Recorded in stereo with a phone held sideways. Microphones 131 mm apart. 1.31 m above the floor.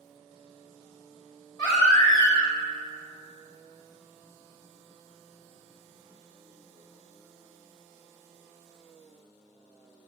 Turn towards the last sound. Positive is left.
turn(degrees=35)  # may be behind; listen again after turning